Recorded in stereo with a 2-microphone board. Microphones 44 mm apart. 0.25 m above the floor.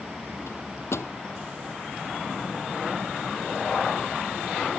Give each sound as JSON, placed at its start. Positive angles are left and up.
{"t": 0.5, "sound": "a microwave", "side_deg": 80}